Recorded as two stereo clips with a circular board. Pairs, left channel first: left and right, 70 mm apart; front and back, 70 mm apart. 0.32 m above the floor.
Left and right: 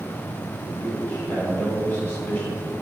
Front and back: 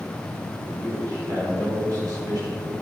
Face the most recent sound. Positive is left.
turn(degrees=150)